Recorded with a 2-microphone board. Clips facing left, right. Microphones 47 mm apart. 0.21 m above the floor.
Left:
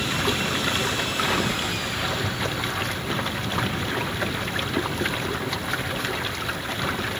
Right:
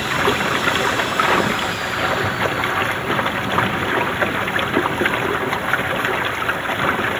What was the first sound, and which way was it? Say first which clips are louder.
Running water: right 7 dB; 35° right (ahead or behind).